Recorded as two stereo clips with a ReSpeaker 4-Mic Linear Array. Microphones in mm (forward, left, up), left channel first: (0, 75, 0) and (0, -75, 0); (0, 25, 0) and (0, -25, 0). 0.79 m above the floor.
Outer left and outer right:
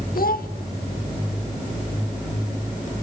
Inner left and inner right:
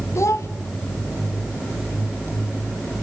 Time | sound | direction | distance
0.1 | a child speaking | 70° left (ahead or behind) | 1.6 m